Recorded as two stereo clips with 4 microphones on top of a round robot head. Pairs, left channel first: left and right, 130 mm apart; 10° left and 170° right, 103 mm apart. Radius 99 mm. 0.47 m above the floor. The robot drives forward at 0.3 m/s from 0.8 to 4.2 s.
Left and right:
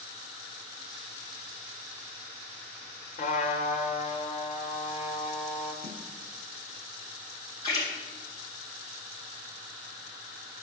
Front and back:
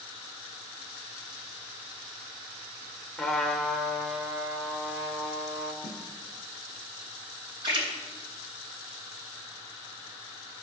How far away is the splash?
About 4 m.